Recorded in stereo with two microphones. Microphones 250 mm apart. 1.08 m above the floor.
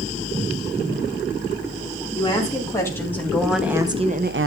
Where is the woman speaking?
15° left (ahead or behind), 2.5 m; by 4.5 s 60° right (ahead or behind), 0.7 m.